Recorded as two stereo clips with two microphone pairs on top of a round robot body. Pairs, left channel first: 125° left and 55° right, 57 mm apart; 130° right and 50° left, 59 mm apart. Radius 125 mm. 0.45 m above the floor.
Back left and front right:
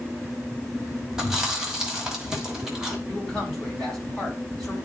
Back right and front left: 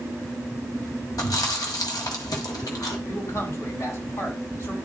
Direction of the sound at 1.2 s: 135° right.